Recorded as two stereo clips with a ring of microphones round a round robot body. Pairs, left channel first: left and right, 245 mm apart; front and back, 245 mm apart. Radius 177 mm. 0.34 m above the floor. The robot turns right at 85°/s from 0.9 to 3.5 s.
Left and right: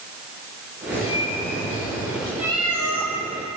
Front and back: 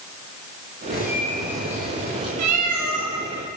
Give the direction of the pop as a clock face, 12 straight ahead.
No pop in this recording.